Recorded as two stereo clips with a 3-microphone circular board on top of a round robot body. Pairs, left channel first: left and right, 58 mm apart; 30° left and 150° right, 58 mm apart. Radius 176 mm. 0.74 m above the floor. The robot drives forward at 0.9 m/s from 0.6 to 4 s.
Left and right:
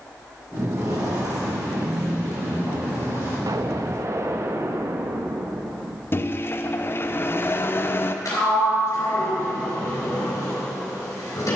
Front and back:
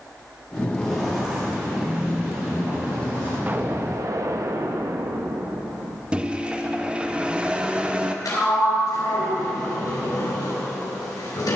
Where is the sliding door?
55° left, 3.5 m.